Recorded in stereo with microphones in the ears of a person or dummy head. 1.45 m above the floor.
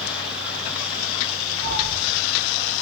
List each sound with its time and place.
1.6 s a cat meowing: 20° left (ahead or behind), 1.3 m; by 2.8 s centre (ahead or behind), 1.3 m